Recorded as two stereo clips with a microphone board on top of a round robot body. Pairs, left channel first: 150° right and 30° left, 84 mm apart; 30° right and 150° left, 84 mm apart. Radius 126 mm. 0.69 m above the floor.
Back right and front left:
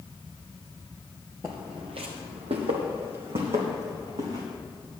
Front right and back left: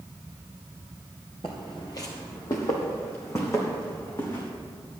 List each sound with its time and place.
1.4 s footsteps: 15° right, 0.7 m; by 4.4 s 30° left, 3.5 m